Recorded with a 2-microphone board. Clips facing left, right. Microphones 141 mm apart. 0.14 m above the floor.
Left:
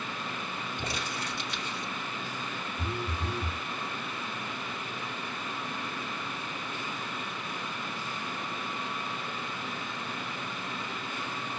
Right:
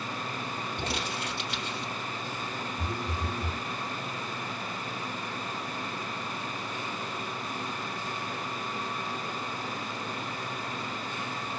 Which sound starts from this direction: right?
Crumpling, at 0.8 s.